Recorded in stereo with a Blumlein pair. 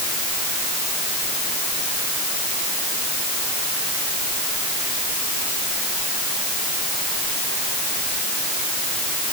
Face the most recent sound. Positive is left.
No sound to turn to.